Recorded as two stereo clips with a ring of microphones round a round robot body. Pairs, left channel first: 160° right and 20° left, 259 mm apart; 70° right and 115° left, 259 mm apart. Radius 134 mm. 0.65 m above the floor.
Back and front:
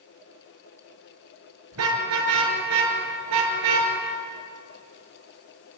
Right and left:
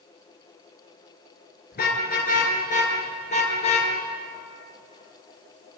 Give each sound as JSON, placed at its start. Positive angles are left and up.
{"t": 1.7, "sound": "a car horn", "azimuth_deg": -10, "distance_m": 5.5}